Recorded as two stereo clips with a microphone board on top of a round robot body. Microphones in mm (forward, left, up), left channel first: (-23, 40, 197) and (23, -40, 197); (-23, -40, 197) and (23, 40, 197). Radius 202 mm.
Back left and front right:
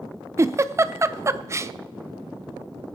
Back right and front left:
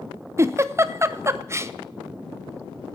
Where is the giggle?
Straight ahead, 0.7 m.